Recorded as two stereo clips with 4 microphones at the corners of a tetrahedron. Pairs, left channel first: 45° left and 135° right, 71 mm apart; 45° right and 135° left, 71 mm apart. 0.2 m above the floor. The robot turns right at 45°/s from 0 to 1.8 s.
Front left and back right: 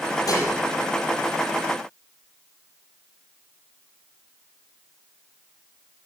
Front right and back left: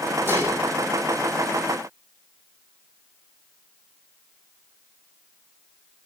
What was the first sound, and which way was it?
Dishes clattering, 80° left.